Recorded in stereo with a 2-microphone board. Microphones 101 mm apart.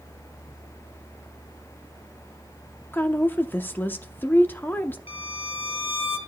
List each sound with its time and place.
2.9 s a woman speaking: 20° left (ahead or behind), 0.7 m
5.1 s a violin: 80° left, 1.9 m